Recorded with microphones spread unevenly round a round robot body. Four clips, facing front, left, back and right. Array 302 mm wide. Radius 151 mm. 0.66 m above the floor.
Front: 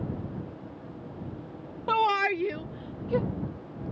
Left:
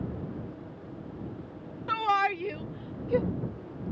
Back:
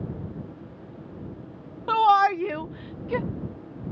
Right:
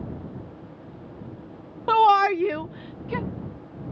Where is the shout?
70° right; by 3.3 s 140° right.